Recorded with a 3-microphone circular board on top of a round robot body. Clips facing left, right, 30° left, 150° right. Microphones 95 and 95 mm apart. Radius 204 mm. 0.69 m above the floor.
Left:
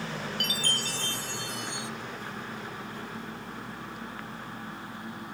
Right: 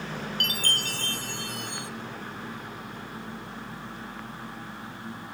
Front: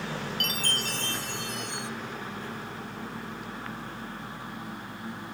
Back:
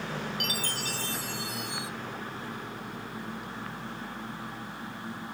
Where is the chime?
65° right, 0.7 m.